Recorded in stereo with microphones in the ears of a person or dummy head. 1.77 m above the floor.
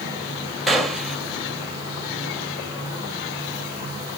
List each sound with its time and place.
0.7 s a gunshot: 5° left (ahead or behind), 1.2 m